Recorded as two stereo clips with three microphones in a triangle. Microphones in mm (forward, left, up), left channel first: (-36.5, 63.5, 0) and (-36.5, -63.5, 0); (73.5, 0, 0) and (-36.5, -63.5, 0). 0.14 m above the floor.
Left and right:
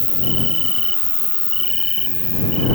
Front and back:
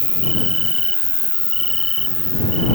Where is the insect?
120° right.